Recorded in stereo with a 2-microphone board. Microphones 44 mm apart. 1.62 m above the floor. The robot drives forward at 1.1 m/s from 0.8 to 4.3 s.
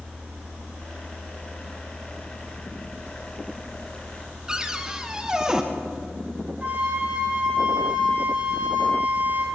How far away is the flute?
About 4 m.